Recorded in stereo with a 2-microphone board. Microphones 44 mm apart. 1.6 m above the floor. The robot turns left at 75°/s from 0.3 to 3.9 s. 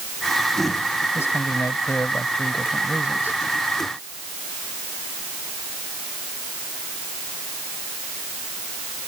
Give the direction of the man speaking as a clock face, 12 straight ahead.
8 o'clock.